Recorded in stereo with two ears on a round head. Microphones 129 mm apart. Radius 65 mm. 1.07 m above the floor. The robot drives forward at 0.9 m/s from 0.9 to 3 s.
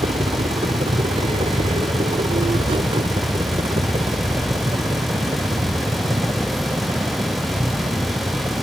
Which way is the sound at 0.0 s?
40° right (ahead or behind).